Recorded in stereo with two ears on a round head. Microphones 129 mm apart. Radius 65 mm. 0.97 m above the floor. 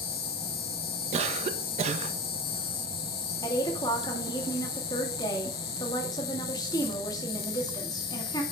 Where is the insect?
70° left (ahead or behind), 1.0 m.